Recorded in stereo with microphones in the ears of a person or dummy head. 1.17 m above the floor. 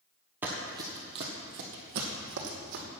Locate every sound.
0.4 s running footsteps: 5° right (ahead or behind), 1.4 m; by 2.8 s 55° right (ahead or behind), 2.5 m